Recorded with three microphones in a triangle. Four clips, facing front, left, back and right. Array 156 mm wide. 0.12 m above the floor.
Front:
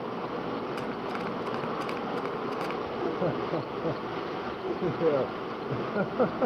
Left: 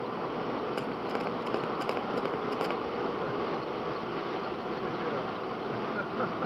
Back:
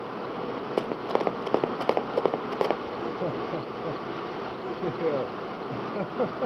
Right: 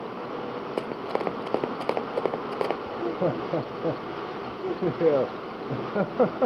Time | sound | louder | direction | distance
0.8 | running footsteps | right 3 dB, back 6 dB | 155° right | ?
2.9 | laughter | right 5 dB, front 1 dB | 80° right | ?